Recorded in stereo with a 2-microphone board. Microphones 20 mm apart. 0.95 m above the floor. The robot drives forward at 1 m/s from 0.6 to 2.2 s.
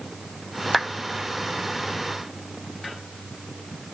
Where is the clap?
15° right (ahead or behind), 1.0 m.